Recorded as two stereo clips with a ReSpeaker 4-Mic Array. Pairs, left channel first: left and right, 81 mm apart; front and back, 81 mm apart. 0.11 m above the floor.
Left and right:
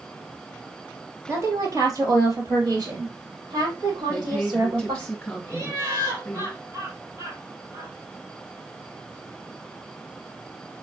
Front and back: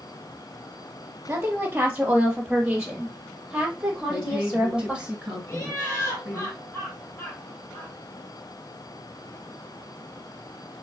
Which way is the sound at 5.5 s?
50° right.